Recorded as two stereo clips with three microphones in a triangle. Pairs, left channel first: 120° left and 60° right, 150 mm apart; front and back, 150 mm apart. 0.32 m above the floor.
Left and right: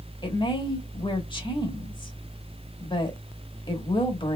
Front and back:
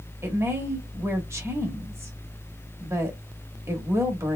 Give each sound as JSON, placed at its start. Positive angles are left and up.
{"t": 0.2, "sound": "a woman speaking", "azimuth_deg": 125, "distance_m": 1.1}